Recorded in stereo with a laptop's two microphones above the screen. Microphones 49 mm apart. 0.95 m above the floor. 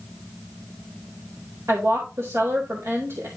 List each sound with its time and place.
1.7 s a woman speaking: 80° right, 4 m